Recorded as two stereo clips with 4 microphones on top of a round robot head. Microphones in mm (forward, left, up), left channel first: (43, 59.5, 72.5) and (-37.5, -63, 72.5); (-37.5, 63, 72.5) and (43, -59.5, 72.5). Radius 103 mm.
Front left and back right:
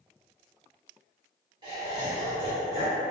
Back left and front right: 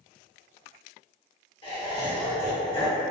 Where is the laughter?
Straight behind, 1.4 m.